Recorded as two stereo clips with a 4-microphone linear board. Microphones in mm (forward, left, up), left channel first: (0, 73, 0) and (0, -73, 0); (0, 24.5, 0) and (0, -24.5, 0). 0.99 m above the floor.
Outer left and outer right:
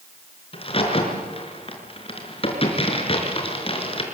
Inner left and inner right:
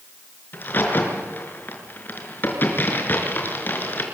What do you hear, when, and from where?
0.5 s a crack: 40° left (ahead or behind), 5 m